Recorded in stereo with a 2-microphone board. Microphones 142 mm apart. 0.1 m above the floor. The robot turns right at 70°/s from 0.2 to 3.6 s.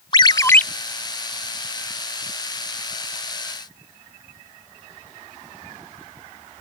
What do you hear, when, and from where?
0.1 s a ringtone: 35° left (ahead or behind); by 0.6 s 10° left (ahead or behind)